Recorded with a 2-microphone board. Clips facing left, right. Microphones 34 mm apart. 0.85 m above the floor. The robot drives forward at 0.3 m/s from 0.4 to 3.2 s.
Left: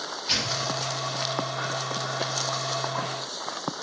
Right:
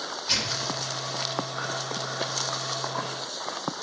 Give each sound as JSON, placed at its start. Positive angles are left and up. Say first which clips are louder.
{"t": 0.3, "sound": "tearing paper", "louder": "left 2 dB", "side_deg": 15, "distance_m": 1.3}